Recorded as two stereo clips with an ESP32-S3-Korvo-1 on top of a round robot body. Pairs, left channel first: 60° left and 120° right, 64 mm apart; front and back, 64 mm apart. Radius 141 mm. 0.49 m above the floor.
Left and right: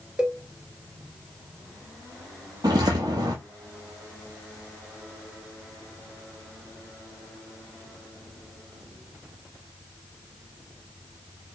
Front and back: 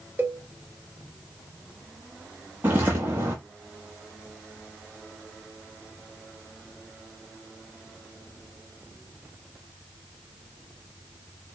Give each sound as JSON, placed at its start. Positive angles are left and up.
{"t": 0.2, "sound": "a cowbell", "azimuth_deg": 175, "distance_m": 1.1}
{"t": 2.6, "sound": "footsteps", "azimuth_deg": -125, "distance_m": 0.5}